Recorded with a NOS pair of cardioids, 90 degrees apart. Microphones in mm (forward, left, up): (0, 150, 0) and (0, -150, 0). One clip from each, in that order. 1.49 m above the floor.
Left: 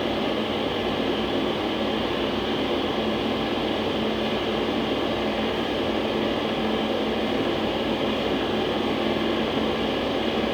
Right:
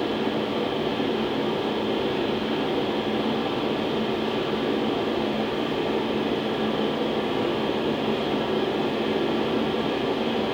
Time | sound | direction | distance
0.0 | a fan | 30° left | 2.5 m